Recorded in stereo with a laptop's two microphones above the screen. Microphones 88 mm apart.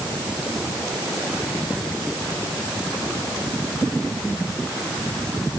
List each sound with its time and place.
Only background noise.